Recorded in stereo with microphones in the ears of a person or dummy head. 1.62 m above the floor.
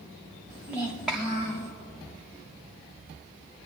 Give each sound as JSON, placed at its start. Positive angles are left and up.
{"t": 0.5, "sound": "a child speaking", "side_deg": -15, "distance_m": 1.0}